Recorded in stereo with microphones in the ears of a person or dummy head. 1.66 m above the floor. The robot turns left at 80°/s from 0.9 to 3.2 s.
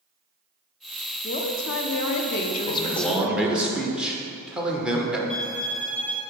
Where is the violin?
10° left (ahead or behind), 1.8 m.